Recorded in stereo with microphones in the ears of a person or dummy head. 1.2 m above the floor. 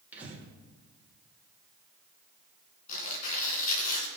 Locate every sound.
0.1 s breathing: 15° right (ahead or behind), 2.5 m
2.9 s tearing paper: 40° left (ahead or behind), 2.5 m